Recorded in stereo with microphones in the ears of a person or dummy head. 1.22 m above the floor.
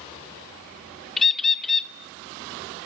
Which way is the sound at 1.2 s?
Centre (ahead or behind).